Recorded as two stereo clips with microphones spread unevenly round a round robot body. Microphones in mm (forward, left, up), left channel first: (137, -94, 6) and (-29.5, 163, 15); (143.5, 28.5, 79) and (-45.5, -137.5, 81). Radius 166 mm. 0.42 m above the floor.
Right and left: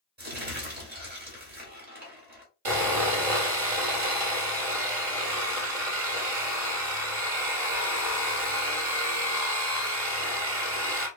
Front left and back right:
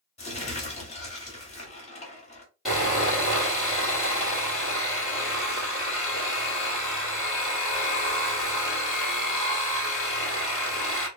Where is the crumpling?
85° left, 1.4 m.